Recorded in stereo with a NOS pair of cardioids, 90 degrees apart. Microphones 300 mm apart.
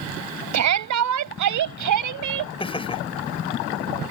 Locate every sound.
0.5 s a shout: 60° right; by 2.5 s 75° right
2.6 s laughter: 15° left